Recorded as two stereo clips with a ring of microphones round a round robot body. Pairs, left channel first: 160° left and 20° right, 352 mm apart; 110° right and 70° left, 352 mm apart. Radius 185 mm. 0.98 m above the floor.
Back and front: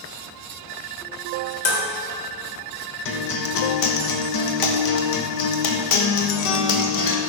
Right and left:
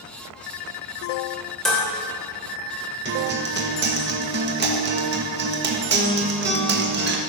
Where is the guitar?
125° left, 1.5 m.